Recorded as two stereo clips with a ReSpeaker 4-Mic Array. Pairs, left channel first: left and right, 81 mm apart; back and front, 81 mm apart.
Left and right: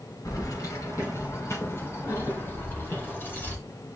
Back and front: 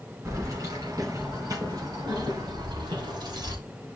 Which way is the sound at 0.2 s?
50° left.